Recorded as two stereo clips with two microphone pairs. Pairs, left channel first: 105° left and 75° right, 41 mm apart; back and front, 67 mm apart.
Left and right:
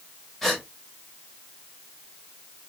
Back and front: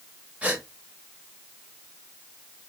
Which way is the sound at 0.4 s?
35° left.